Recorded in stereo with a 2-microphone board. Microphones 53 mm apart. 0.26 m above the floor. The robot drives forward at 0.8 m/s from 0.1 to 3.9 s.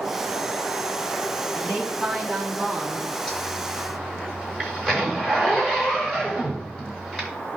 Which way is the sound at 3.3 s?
10° left (ahead or behind).